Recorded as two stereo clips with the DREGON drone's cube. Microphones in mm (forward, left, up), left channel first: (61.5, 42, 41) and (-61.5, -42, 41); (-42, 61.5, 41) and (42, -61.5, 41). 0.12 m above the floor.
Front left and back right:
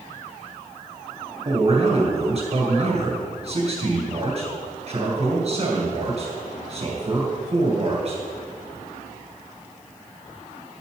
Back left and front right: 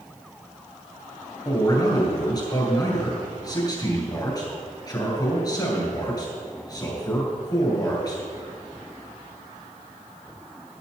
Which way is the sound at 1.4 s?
175° right.